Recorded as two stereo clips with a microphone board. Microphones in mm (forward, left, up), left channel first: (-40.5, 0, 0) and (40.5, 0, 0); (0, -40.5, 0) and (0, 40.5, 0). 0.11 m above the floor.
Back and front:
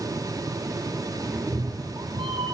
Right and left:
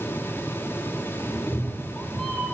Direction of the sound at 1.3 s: 70° right.